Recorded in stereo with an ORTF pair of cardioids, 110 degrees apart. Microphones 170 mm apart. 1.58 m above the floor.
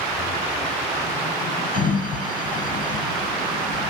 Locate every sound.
1.7 s a sliding door: 55° left, 1.5 m